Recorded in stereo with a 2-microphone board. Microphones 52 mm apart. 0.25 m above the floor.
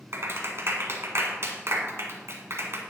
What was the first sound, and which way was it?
A clap, 60° right (ahead or behind).